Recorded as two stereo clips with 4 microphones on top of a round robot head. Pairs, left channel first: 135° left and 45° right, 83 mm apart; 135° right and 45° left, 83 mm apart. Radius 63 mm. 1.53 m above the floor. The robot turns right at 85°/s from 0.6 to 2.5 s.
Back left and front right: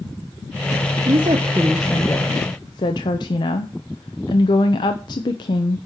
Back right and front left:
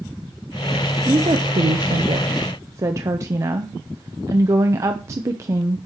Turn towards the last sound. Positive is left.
turn(degrees=100)